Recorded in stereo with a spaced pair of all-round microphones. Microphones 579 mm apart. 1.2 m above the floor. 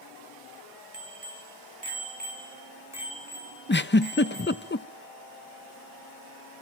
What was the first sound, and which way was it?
A bicycle bell, 70° right (ahead or behind).